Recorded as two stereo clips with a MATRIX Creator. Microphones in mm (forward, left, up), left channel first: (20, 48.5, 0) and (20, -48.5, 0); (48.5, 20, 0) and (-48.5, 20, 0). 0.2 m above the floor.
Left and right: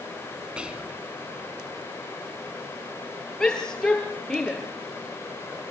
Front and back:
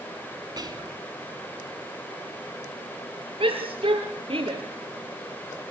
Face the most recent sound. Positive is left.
turn(degrees=175)